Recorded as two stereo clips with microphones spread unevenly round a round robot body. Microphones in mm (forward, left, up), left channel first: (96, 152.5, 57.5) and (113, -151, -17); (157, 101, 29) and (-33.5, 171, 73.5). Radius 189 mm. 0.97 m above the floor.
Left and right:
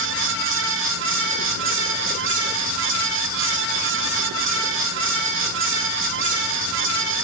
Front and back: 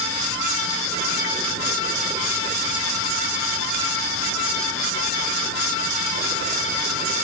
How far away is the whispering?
I don't hear whispering.